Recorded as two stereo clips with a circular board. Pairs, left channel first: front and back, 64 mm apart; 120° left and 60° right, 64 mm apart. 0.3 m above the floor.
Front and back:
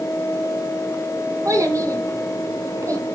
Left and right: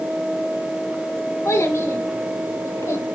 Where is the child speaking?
155° left, 2 m.